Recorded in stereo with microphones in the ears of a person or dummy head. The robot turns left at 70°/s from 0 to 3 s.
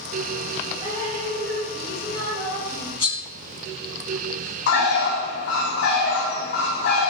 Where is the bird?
65° left (ahead or behind), 0.6 m.